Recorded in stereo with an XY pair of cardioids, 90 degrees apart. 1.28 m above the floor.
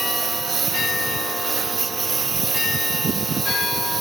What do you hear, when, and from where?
0.0 s a lawn mower: 45° right